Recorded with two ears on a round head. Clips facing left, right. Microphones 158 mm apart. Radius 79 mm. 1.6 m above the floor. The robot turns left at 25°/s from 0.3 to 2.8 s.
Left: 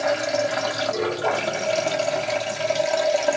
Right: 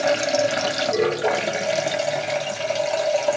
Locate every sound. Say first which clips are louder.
0.0 s running water: right 2 dB; 125° right, 0.9 m; by 3.4 s 175° left, 0.9 m